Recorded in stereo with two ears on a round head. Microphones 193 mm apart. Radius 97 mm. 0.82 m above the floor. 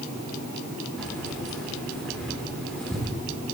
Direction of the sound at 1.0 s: Centre (ahead or behind).